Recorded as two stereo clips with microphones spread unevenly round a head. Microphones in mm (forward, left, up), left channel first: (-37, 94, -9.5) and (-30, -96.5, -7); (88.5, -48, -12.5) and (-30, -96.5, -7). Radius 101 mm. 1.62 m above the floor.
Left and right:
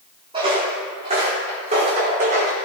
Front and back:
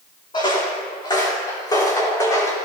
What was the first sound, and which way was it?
Footsteps, 25° right.